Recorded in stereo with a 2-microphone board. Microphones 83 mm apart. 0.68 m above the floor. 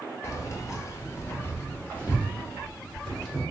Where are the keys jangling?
40° left (ahead or behind), 0.6 m; by 3.4 s 10° left (ahead or behind), 1.5 m.